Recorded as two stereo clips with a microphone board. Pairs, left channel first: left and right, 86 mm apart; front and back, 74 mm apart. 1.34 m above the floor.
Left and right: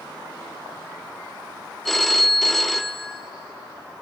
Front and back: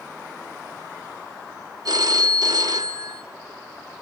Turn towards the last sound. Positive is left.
turn(degrees=175)